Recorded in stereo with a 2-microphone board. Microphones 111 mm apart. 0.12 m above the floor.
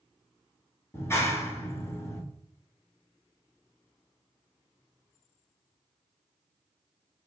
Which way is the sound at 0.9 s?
25° left (ahead or behind).